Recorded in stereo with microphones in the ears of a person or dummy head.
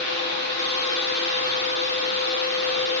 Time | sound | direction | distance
0.0 | a fan | 35° left (ahead or behind) | 1.8 m